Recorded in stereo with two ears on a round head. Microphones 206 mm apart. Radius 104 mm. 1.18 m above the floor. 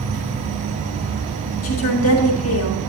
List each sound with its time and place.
0.0 s an insect: 60° right (ahead or behind), 2.5 m
1.6 s a woman speaking: 65° left (ahead or behind), 1.6 m